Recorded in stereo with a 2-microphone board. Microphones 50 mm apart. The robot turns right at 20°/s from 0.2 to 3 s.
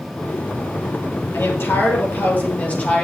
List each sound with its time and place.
1.3 s a woman speaking: 125° left, 4.5 m; by 3.0 s 155° left, 4.5 m